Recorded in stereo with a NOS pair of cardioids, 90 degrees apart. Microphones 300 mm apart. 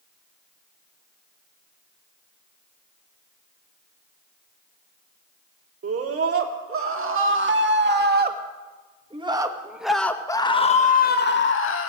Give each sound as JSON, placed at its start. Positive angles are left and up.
{"t": 5.8, "sound": "a scream", "azimuth_deg": -50, "distance_m": 3.5}